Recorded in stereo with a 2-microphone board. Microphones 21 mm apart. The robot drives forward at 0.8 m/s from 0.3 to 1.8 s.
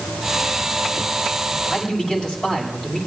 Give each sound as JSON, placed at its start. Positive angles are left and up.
{"t": 1.6, "sound": "a man speaking", "side_deg": 30, "distance_m": 6.0}